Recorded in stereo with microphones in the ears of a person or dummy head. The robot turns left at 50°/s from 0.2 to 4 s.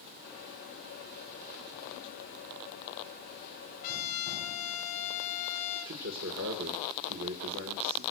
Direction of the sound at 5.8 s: 75° right (ahead or behind).